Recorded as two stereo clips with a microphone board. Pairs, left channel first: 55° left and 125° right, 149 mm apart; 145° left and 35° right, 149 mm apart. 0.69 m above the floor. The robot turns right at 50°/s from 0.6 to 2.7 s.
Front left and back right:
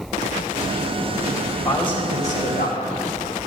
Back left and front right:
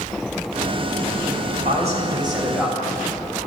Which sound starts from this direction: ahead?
A man speaking, at 1.6 s.